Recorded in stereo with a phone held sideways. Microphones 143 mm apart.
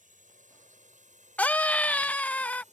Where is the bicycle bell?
I don't hear a bicycle bell.